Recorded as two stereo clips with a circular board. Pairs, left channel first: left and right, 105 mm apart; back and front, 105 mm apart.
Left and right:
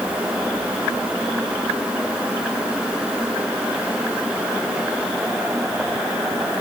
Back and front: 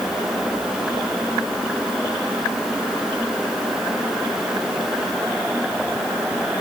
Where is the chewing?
I don't hear chewing.